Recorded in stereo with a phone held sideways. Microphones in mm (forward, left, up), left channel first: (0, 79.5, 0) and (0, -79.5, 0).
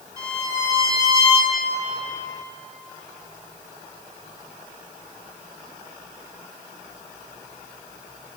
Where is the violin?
30° left (ahead or behind), 1.1 m.